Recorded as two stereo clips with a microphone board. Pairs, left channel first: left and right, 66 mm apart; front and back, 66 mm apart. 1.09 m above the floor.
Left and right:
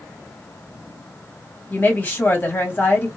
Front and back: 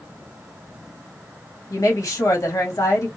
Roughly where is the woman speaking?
Ahead left.